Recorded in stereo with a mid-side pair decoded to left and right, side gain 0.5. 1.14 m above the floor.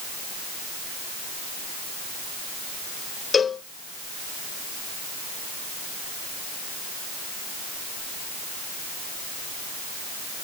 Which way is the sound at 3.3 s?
40° left.